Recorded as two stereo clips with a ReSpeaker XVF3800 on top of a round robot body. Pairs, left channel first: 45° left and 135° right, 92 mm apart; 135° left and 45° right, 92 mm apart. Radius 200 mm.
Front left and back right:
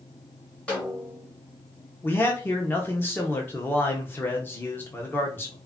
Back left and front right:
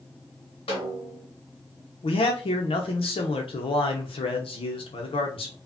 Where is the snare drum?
125° left, 0.9 m.